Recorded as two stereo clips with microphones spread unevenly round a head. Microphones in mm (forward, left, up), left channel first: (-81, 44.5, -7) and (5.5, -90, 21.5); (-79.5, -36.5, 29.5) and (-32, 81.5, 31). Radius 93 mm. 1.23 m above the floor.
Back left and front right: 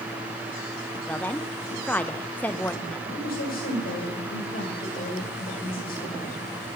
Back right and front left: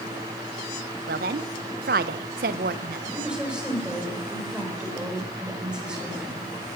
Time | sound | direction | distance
1.1 | a woman speaking | 40° left | 0.5 m
3.1 | a woman speaking | 150° left | 6 m